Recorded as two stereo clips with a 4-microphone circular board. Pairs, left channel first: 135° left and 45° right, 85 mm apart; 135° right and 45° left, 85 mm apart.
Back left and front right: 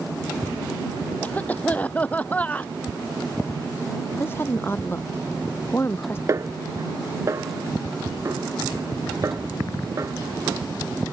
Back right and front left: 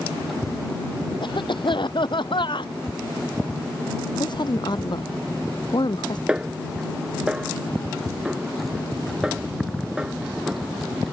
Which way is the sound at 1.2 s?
155° right.